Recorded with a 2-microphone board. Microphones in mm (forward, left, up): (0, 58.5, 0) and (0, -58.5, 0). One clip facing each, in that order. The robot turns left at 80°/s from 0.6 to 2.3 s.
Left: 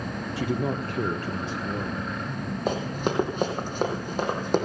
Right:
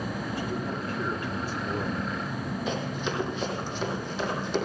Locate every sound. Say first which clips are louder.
0.4 s a man speaking: left 8 dB; 90° left, 1.1 m; by 2.1 s 30° right, 1.1 m
2.7 s running footsteps: left 6 dB; 50° left (ahead or behind), 2.5 m